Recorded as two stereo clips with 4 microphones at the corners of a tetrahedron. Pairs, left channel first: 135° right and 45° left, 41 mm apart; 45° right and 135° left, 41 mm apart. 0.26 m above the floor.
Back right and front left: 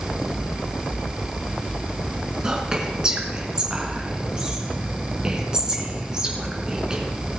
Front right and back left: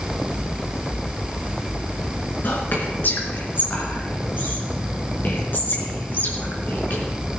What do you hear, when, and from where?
2.4 s whispering: 25° right, 4 m